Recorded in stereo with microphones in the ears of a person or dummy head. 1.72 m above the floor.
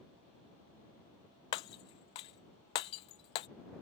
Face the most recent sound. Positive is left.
turn(degrees=25)  # may be behind; listen again after turning